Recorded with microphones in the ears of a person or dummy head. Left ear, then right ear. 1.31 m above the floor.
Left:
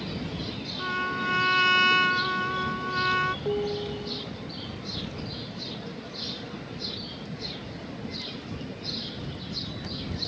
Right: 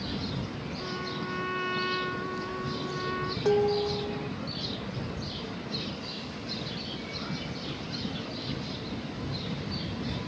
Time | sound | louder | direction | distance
0.8 | a trumpet | left 8 dB | 65° left (ahead or behind) | ?
3.5 | dishes clattering | right 4 dB | 80° right | ?